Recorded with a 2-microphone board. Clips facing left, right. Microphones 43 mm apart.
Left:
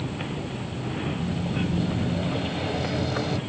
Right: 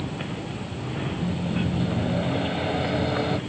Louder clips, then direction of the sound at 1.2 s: Right 3 dB; 20° right (ahead or behind).